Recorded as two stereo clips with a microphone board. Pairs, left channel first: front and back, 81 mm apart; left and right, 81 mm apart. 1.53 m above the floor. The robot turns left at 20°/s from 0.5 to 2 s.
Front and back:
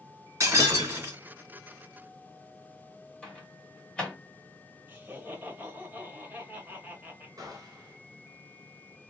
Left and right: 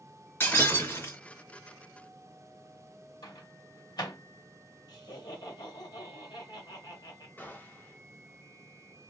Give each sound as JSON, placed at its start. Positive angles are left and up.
{"t": 0.4, "sound": "breaking glass", "azimuth_deg": 145, "distance_m": 2.0}
{"t": 3.2, "sound": "a microwave", "azimuth_deg": 75, "distance_m": 1.4}
{"t": 4.9, "sound": "laughter", "azimuth_deg": 115, "distance_m": 1.7}
{"t": 7.4, "sound": "a gunshot", "azimuth_deg": 150, "distance_m": 1.1}